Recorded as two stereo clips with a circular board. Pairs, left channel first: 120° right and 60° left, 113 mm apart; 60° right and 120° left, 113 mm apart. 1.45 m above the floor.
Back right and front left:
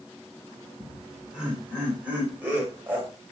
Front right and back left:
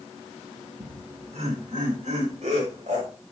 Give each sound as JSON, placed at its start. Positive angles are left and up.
{"t": 0.8, "sound": "laughter", "azimuth_deg": 145, "distance_m": 4.5}